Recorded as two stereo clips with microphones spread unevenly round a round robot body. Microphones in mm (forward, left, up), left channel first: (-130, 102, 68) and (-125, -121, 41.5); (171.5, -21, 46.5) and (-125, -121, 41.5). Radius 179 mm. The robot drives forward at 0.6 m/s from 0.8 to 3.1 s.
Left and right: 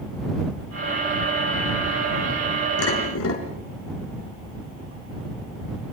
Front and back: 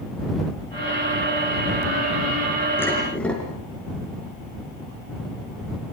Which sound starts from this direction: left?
Dishes clattering, at 2.8 s.